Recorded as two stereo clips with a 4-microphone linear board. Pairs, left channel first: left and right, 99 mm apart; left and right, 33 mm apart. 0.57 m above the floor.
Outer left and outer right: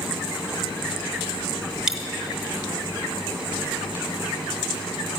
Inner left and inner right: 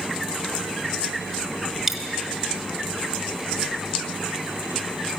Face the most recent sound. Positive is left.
turn(degrees=-5)  # may be behind; listen again after turning